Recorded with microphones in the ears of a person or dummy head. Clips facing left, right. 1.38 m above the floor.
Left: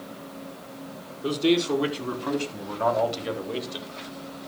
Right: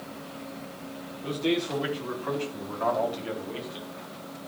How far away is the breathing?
I don't hear breathing.